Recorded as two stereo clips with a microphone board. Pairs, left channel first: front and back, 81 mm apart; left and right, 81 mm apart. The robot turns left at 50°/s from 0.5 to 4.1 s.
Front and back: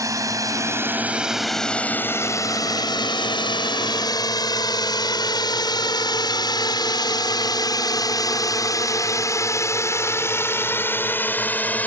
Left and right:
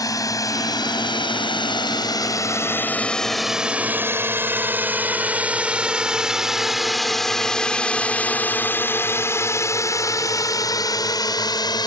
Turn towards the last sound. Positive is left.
turn(degrees=70)